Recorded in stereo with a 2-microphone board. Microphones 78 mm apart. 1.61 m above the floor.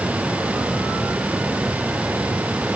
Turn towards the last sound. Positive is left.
No sound to turn to.